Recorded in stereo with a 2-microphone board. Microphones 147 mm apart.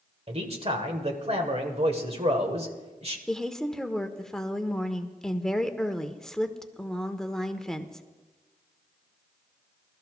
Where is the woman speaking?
5° left (ahead or behind), 1.0 m.